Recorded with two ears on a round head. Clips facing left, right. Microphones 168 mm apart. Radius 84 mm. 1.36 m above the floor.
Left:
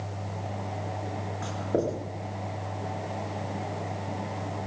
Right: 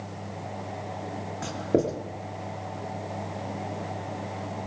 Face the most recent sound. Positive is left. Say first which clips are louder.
# right 3 dB
turn(degrees=-30)  # may be behind; listen again after turning